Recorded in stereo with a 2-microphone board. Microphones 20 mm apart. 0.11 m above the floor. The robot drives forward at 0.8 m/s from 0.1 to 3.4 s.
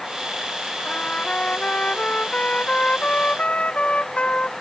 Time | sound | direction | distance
0.8 | a trumpet | 75° left (ahead or behind) | ?